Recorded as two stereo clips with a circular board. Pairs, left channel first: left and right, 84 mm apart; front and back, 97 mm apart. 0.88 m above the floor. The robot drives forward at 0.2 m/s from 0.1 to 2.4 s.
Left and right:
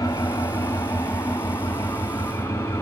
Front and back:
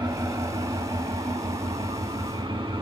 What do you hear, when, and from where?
0.0 s an engine running: 135° left, 1.0 m; by 2.8 s 150° left, 1.4 m